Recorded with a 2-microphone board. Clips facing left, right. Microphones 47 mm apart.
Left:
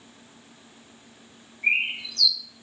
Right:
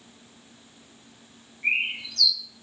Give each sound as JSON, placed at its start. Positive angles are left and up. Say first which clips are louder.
{"t": 1.6, "sound": "a bird", "louder": "left 2 dB", "side_deg": 0, "distance_m": 1.6}